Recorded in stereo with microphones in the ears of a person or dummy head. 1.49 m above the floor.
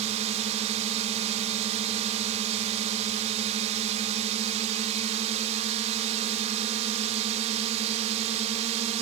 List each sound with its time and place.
0.0 s a drone: 35° right (ahead or behind)